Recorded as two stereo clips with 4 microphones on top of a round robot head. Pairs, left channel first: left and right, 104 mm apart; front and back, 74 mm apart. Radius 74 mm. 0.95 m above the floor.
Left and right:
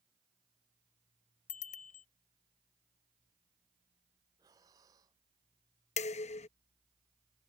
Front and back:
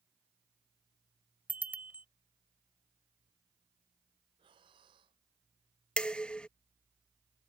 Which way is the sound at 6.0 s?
80° left.